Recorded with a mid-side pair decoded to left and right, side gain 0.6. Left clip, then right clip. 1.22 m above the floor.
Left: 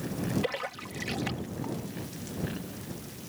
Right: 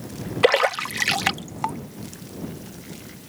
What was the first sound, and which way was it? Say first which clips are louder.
A splash: right 15 dB; 65° right.